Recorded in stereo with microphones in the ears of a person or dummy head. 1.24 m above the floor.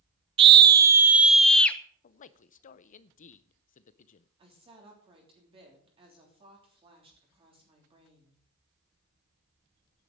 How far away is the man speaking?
About 0.5 m.